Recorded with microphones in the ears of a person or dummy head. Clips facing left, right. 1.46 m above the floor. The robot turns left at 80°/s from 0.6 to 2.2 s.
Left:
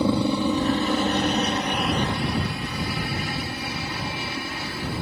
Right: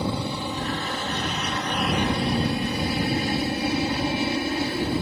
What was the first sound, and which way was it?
A helicopter, 100° left.